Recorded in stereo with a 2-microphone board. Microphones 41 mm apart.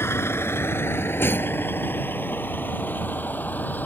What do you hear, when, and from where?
0.0 s a vehicle: 80° left; by 3.9 s 45° left (ahead or behind)